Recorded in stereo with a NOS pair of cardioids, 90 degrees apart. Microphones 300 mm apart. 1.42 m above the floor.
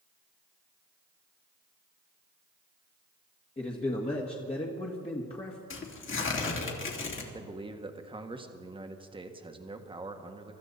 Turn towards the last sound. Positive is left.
turn(degrees=-15)